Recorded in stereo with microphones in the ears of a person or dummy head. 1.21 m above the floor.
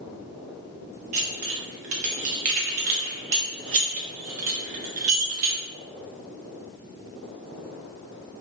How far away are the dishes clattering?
About 0.5 m.